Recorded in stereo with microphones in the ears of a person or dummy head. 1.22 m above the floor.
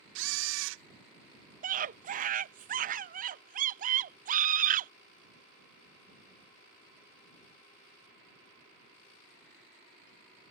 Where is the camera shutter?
70° right (ahead or behind).